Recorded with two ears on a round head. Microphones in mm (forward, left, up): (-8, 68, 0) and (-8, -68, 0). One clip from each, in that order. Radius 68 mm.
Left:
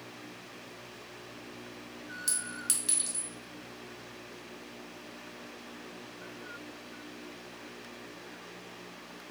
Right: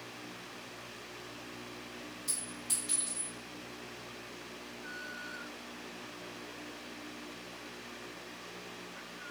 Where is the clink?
70° left (ahead or behind), 1.2 m.